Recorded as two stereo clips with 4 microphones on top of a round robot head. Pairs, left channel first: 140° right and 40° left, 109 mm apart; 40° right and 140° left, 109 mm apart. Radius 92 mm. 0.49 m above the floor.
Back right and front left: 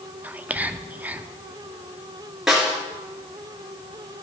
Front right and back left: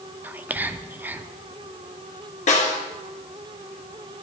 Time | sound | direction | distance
0.2 | whispering | 95° left | 0.7 m
2.5 | a snare drum | 50° right | 2.0 m